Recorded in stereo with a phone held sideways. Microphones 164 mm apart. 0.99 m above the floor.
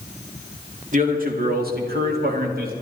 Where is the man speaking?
50° right (ahead or behind), 2 m; by 2.7 s 65° right (ahead or behind), 2.5 m.